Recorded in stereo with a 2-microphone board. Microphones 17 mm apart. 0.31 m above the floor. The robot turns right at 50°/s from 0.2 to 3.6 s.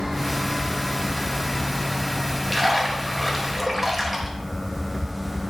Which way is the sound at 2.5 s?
5° right (ahead or behind).